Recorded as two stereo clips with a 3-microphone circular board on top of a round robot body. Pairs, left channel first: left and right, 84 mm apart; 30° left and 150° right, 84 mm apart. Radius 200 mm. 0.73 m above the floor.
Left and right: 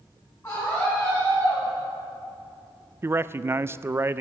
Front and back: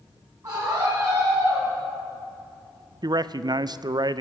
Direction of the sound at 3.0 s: 145° right.